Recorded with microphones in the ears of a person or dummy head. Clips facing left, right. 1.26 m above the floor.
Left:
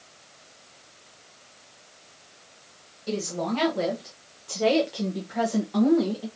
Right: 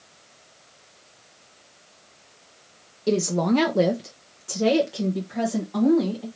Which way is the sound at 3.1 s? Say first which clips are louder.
Right 7 dB; 60° right (ahead or behind).